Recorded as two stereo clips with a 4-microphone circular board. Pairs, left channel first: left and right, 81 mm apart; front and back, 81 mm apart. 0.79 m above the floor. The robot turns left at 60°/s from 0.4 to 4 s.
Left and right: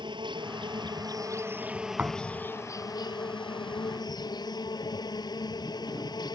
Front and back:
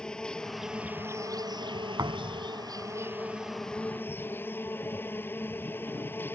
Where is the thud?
150° right; by 2.5 s straight behind.